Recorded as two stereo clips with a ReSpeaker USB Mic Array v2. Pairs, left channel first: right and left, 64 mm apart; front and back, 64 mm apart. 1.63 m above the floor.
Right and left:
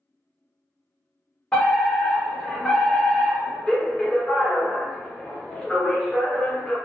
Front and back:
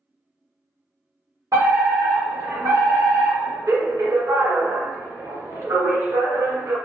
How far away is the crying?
I don't hear crying.